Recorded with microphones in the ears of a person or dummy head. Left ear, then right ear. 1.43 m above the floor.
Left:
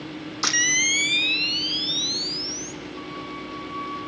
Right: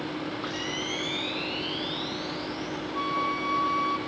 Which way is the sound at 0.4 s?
65° left (ahead or behind).